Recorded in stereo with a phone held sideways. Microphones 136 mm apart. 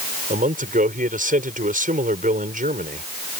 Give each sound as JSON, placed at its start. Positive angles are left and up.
{"t": 0.3, "sound": "a man speaking", "side_deg": -75}